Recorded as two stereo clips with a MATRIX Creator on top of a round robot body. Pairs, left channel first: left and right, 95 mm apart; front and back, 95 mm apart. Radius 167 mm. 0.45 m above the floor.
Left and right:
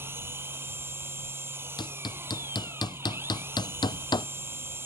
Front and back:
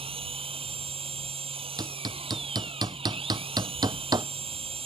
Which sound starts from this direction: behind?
An engine running, at 0.0 s.